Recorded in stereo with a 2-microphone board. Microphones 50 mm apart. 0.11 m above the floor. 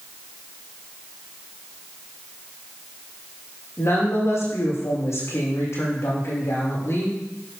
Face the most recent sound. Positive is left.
turn(degrees=65)  # may be behind; listen again after turning